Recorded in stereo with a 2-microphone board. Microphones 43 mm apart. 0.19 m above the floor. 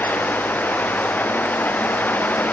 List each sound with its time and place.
Only background noise.